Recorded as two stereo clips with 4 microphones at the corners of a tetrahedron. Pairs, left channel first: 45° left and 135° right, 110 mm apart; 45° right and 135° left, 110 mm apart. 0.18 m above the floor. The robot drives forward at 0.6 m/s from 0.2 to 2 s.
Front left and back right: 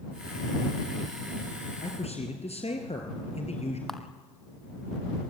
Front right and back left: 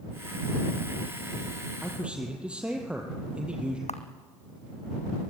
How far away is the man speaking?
About 4 m.